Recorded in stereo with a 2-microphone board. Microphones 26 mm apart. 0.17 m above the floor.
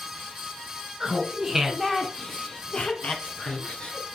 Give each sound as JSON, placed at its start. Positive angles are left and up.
{"t": 1.0, "sound": "laughter", "side_deg": -25, "distance_m": 1.8}